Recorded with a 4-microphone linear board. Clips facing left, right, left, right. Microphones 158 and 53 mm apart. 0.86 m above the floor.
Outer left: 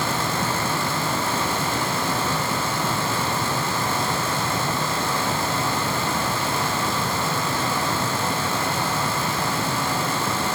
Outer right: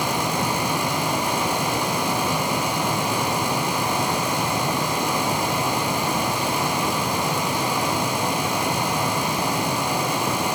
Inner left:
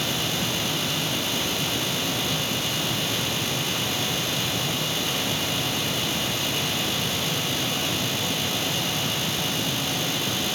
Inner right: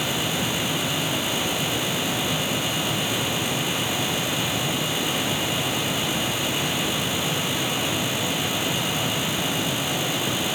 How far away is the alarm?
No alarm in this recording.